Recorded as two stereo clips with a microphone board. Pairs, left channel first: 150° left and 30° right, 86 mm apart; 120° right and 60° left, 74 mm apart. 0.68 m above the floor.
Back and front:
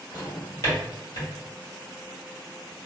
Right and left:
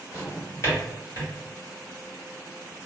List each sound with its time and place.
0.1 s a drawer: 170° right, 1.8 m